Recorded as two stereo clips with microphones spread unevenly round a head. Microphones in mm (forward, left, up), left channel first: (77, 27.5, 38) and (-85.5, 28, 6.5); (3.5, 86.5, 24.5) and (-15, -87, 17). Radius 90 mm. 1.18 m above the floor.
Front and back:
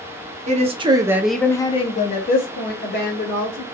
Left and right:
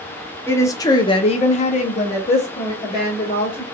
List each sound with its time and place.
0.5 s a woman speaking: 160° left, 0.7 m; by 3.6 s 15° left, 1.4 m